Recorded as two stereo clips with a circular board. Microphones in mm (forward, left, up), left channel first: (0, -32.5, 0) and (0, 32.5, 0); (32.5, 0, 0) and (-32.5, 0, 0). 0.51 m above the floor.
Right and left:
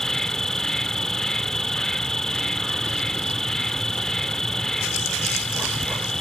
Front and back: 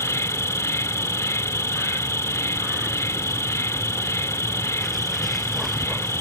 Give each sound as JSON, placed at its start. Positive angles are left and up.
{"t": 0.0, "sound": "an insect", "azimuth_deg": -10}